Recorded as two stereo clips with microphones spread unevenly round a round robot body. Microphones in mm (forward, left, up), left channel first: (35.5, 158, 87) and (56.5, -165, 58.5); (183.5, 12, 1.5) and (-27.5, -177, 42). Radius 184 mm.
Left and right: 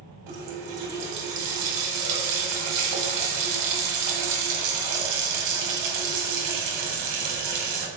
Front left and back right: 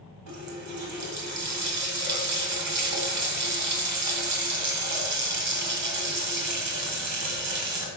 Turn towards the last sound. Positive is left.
turn(degrees=-115)